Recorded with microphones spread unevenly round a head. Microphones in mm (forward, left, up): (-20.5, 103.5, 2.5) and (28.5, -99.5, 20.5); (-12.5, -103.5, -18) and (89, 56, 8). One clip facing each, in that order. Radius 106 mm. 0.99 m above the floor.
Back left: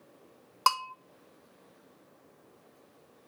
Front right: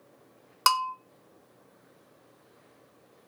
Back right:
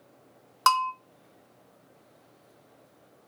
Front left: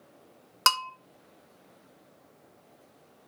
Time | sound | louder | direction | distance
0.7 | a bell | front right 2 dB, back right 5 dB | 10° right | 1.3 m